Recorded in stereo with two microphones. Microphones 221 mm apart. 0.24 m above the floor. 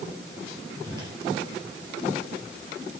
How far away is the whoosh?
About 3.5 m.